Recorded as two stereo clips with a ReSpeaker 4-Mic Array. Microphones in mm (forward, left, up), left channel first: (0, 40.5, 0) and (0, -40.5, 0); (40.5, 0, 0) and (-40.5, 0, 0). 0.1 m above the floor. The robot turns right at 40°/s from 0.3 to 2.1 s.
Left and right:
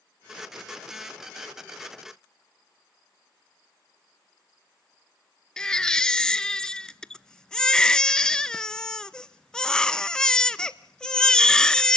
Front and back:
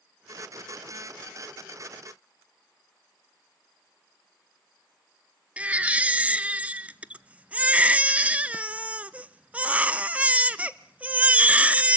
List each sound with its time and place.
5.6 s a baby crying: 150° left, 0.6 m